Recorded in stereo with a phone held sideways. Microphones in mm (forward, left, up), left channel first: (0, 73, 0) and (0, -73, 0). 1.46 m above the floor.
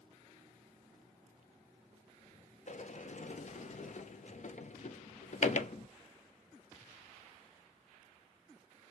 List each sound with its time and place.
2.7 s a sliding door: 55° left (ahead or behind), 0.5 m